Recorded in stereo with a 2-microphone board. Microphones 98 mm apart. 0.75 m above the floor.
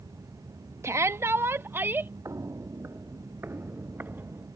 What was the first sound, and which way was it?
A shout, 30° right (ahead or behind).